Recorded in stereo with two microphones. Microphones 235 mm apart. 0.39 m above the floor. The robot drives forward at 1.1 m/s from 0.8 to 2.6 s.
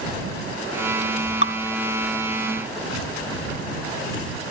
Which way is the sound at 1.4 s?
55° left (ahead or behind).